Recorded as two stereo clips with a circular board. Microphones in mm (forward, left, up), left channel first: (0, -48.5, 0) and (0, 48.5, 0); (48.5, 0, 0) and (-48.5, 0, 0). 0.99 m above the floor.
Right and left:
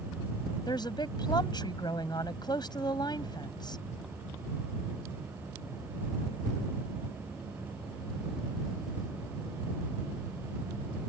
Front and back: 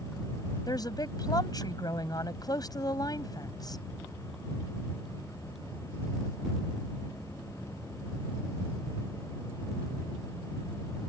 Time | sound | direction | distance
0.7 | a woman speaking | 50° right | ?